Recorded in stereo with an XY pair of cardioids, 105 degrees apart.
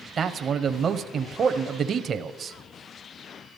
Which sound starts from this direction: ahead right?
A man speaking, at 0.2 s.